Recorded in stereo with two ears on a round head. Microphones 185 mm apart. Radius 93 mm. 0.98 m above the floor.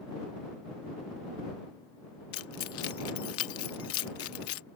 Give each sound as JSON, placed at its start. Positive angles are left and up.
{"t": 2.3, "sound": "keys jangling", "side_deg": 80}